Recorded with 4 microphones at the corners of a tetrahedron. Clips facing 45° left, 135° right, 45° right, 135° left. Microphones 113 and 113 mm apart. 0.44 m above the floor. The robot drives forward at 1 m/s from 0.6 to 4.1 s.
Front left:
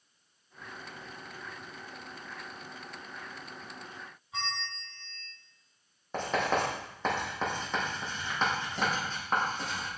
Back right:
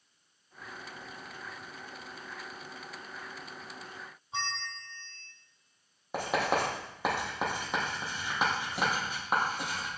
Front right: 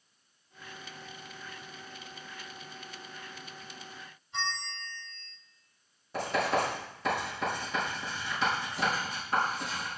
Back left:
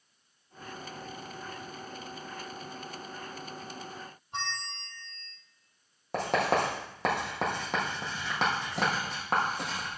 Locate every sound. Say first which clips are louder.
4.3 s a bell: even, front right 1 dB; 165° left, 4 m
6.1 s writing: even, back left 2 dB; 145° left, 5 m